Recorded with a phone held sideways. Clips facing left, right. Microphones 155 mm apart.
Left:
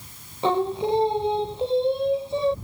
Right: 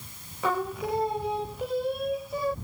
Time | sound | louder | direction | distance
0.4 | singing | left 6 dB | 25° left (ahead or behind) | ?